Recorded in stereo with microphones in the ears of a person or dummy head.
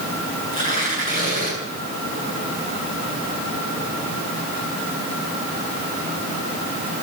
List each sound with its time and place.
0.5 s tearing paper: 40° left (ahead or behind), 8.5 m